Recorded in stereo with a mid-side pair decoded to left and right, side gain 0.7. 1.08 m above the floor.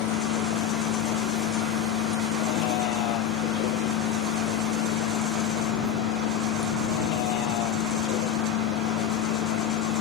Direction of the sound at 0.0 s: 65° left.